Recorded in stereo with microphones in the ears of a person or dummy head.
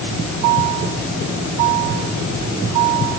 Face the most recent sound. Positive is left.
No sound to turn to.